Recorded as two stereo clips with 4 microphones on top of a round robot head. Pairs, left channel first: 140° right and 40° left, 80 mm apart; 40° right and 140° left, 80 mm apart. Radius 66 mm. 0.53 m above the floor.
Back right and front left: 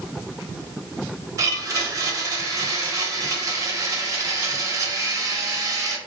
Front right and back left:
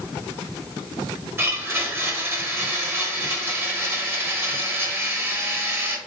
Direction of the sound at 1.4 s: 85° left.